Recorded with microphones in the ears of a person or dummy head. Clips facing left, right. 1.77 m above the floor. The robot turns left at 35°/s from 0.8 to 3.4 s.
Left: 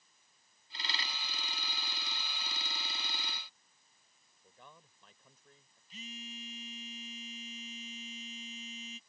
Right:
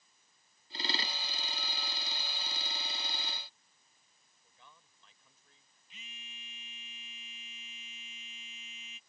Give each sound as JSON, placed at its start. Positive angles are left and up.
{"t": 4.4, "sound": "a man speaking", "side_deg": 45}
{"t": 5.9, "sound": "a phone buzzing", "side_deg": 35}